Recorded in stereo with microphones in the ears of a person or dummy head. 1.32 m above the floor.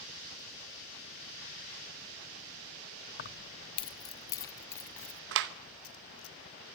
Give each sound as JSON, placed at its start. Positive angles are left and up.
{"t": 3.2, "sound": "keys jangling", "side_deg": 45, "distance_m": 0.8}
{"t": 5.3, "sound": "a clap", "side_deg": -60, "distance_m": 0.9}